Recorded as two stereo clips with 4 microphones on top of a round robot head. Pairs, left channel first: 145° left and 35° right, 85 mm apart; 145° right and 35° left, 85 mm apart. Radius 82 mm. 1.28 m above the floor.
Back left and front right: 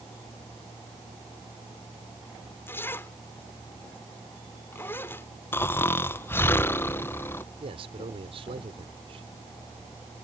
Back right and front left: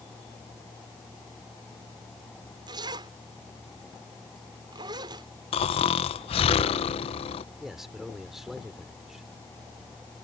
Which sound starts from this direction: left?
A zipper, at 2.7 s.